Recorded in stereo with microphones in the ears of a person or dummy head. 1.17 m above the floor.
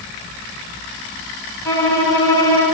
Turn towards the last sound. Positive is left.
turn(degrees=15)  # may be behind; listen again after turning